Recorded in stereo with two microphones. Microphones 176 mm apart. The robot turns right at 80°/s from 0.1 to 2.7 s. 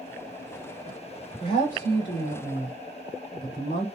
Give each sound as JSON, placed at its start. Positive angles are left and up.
{"t": 1.4, "sound": "a woman speaking", "azimuth_deg": 20, "distance_m": 2.5}